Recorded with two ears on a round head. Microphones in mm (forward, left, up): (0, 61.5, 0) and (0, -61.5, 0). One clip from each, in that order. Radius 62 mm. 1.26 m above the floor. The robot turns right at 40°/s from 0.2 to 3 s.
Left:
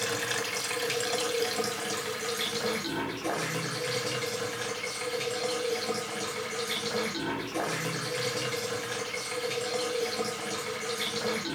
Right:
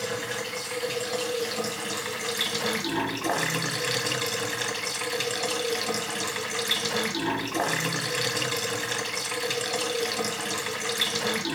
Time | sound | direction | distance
0.0 | running water | 105° left | 1.0 m